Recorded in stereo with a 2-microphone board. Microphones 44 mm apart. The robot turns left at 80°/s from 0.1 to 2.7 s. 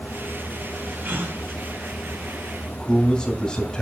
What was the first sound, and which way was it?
A gasp, 45° right (ahead or behind).